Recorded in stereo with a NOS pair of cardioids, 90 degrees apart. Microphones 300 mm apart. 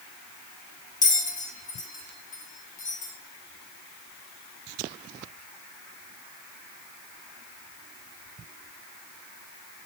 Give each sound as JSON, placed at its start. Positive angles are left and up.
{"t": 1.0, "sound": "a bell", "azimuth_deg": 25, "distance_m": 0.8}